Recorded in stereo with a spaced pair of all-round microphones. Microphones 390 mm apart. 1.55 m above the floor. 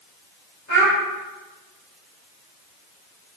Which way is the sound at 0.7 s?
45° left (ahead or behind).